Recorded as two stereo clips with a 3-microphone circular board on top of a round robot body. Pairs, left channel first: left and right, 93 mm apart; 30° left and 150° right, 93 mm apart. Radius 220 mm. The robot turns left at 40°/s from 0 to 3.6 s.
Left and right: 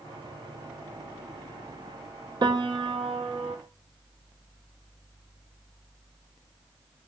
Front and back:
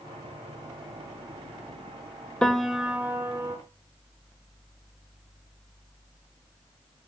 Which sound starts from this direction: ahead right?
A piano, at 2.4 s.